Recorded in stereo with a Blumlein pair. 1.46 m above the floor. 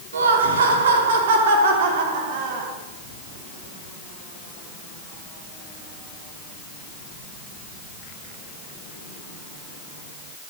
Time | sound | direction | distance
0.1 | laughter | 65° right | 3.5 m